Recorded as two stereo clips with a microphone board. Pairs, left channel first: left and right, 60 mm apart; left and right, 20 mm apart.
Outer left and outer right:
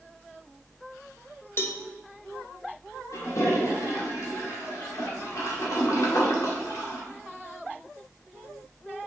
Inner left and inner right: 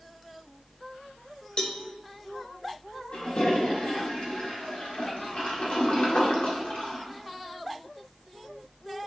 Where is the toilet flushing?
60° left (ahead or behind), 1.8 m.